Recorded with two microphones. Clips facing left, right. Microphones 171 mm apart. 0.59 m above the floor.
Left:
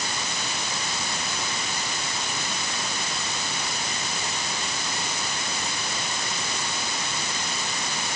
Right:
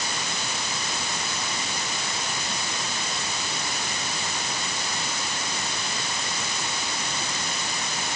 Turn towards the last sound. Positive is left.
No sound to turn to.